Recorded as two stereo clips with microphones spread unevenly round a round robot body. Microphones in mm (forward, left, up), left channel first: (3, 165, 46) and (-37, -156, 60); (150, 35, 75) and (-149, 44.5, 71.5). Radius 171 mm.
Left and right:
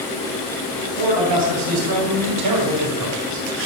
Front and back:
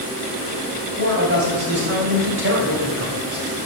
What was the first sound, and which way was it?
A man speaking, 120° right.